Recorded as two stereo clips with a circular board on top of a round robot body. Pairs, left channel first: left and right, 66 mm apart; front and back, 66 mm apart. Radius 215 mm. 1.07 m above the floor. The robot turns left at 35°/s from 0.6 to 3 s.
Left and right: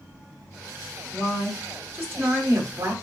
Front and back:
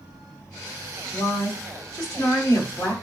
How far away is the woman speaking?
About 1.5 m.